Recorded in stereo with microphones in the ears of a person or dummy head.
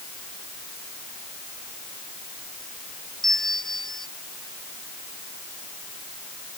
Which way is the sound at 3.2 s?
Centre (ahead or behind).